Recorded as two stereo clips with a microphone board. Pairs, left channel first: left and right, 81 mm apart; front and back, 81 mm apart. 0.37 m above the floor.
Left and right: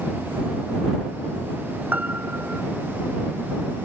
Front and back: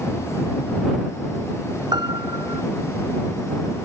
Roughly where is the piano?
Behind.